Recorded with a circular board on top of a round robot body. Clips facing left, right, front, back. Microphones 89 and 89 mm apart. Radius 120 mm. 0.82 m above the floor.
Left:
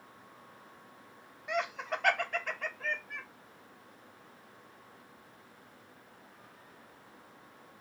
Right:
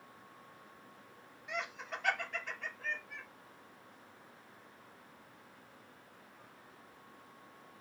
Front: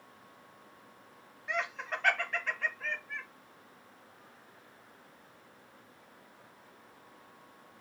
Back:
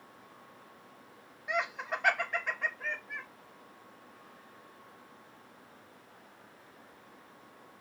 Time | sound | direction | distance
1.5 | laughter | 105° left | 0.8 m